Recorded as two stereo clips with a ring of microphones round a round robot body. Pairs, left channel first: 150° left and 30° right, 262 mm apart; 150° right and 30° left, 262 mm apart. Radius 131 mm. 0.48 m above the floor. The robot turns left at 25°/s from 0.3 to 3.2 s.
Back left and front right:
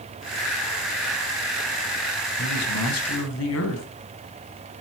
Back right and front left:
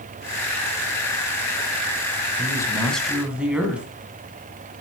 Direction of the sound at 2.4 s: 135° left.